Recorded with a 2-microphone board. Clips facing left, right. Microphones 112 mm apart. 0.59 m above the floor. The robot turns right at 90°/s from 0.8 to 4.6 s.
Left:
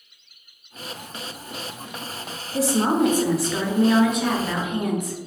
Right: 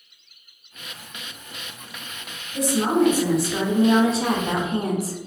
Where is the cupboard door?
I don't hear a cupboard door.